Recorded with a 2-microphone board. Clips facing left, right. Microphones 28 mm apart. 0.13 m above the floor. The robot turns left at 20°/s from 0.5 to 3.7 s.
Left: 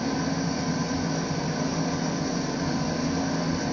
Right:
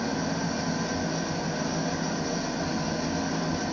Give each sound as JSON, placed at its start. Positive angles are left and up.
{"t": 0.0, "sound": "an engine running", "azimuth_deg": 140, "distance_m": 1.6}